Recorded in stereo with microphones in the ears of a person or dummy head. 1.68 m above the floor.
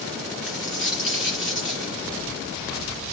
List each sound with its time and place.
0.4 s a dropped coin: 10° right (ahead or behind), 1.6 m